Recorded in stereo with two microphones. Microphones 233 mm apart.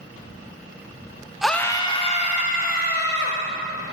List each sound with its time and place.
1.4 s a scream: 5° right (ahead or behind), 0.5 m; by 3.4 s 45° left (ahead or behind), 1.4 m